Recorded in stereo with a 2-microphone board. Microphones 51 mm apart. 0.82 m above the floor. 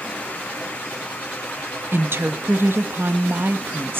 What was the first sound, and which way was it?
A woman speaking, 50° right (ahead or behind).